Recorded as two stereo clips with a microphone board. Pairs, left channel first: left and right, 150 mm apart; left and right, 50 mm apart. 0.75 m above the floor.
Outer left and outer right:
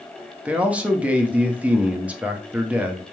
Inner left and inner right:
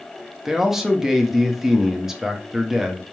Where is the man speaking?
10° right (ahead or behind), 0.5 m.